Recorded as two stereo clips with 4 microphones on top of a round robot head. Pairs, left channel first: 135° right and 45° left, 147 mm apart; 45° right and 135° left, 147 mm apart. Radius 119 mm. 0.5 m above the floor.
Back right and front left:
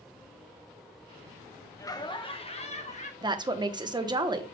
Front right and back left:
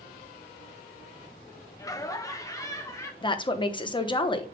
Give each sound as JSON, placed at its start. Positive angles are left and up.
{"t": 1.8, "sound": "laughter", "azimuth_deg": -90, "distance_m": 1.0}
{"t": 3.2, "sound": "a woman speaking", "azimuth_deg": -5, "distance_m": 1.0}